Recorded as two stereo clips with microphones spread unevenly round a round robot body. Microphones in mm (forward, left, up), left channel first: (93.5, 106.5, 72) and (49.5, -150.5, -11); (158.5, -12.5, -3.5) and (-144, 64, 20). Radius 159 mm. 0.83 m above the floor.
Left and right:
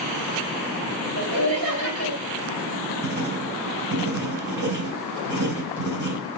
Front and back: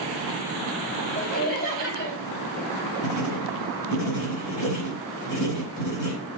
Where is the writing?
55° right, 4.5 m.